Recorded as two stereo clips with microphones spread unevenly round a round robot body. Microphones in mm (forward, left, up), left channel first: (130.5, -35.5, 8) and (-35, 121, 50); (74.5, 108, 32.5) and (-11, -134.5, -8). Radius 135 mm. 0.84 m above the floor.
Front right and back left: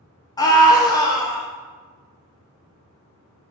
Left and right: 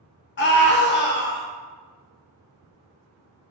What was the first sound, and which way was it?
A scream, 20° left.